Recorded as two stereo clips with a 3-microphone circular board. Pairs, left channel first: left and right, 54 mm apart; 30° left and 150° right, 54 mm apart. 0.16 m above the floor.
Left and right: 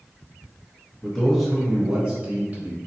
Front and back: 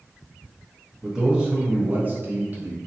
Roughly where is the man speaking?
Behind left.